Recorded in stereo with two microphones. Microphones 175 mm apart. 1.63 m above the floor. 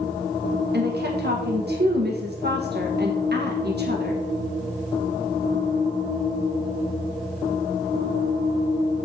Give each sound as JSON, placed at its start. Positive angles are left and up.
{"t": 0.7, "sound": "a woman speaking", "side_deg": -70, "distance_m": 1.5}